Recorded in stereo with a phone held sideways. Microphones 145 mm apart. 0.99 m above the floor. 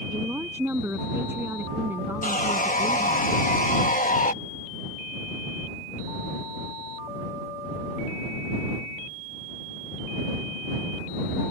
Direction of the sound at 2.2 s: 70° left (ahead or behind).